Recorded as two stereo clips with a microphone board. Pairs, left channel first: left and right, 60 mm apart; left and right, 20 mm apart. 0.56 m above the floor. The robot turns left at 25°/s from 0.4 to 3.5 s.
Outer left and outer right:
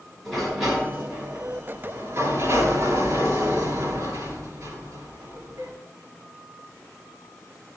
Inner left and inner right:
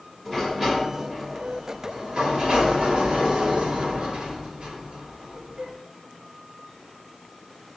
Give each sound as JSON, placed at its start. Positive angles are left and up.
{"t": 0.2, "sound": "a sliding door", "azimuth_deg": 0, "distance_m": 7.0}